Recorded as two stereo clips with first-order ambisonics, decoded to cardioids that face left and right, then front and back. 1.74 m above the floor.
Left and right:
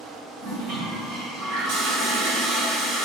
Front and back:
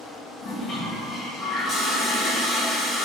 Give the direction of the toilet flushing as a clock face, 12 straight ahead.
2 o'clock.